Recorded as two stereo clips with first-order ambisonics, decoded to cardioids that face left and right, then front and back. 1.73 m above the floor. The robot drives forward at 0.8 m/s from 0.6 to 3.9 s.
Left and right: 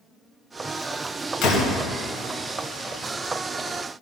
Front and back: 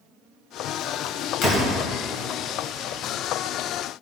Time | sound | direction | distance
1.4 | a door slam | 40° left | 2.5 m